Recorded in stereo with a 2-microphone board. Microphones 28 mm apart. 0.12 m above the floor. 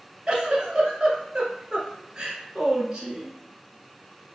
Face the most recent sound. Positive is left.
turn(degrees=-30)  # may be behind; listen again after turning